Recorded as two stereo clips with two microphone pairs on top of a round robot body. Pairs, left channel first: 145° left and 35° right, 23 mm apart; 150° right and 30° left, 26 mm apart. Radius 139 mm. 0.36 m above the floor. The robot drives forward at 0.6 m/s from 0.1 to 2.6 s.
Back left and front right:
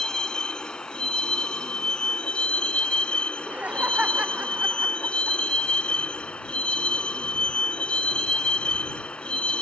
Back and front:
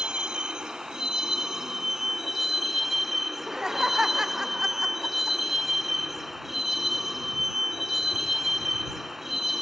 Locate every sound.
0.0 s a vehicle: 90° left; by 9.6 s 115° left
3.3 s laughter: 30° right